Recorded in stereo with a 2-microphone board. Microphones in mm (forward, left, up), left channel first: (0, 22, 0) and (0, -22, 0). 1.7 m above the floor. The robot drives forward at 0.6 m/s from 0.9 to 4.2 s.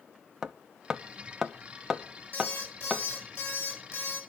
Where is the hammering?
15° right (ahead or behind), 0.7 m; by 3.0 s 5° right (ahead or behind), 1.6 m.